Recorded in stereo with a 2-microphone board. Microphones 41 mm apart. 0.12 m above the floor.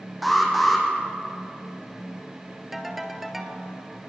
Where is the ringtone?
5° right (ahead or behind), 1.6 m.